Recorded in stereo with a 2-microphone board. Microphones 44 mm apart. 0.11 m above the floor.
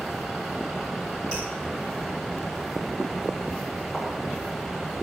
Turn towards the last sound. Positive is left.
turn(degrees=5)  # may be behind; listen again after turning